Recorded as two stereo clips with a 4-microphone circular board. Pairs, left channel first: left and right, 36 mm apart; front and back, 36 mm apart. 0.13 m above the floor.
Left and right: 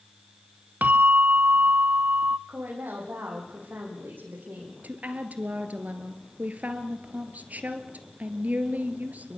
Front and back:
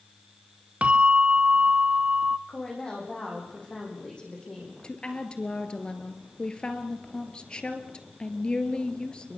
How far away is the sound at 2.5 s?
About 7.5 m.